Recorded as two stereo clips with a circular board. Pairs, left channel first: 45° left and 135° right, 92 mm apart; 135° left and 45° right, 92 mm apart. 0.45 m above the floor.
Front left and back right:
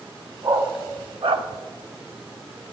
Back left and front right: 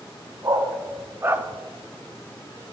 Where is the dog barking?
95° right, 1.1 m; by 1.4 s 120° right, 0.5 m.